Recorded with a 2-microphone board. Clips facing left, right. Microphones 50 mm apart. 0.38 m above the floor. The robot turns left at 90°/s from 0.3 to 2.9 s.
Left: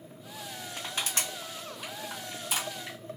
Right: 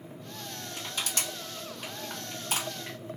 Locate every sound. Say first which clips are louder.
0.8 s crushing: left 1 dB; 55° left (ahead or behind), 2 m; by 3.0 s 50° right (ahead or behind), 2 m